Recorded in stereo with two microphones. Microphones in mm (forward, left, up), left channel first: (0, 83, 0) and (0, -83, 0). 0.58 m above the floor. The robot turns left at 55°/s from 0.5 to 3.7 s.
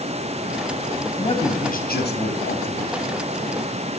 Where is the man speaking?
155° left, 4.5 m; by 3.0 s 55° left, 4.5 m.